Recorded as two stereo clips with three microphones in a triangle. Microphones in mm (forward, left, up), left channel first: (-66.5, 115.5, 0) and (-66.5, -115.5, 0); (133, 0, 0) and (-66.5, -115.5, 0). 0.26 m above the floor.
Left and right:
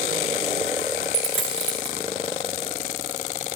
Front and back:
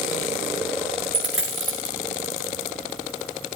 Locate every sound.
1.1 s a dropped coin: 125° right, 3.5 m